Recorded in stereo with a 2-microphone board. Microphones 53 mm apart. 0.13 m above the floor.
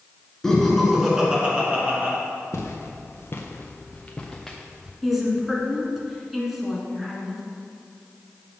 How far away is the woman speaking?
About 1.3 m.